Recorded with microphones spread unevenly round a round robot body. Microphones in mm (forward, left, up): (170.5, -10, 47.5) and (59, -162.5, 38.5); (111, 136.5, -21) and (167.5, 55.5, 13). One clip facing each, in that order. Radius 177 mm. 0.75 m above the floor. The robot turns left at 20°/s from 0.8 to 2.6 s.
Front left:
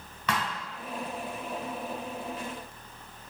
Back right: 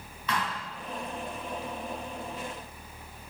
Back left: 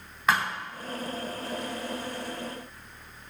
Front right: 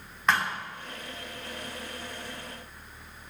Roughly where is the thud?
Ahead left.